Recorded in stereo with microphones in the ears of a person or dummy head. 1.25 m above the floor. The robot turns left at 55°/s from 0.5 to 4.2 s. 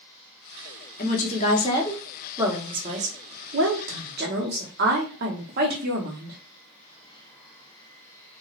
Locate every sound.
1.0 s a woman speaking: 65° left, 0.8 m; by 6.4 s 110° right, 0.8 m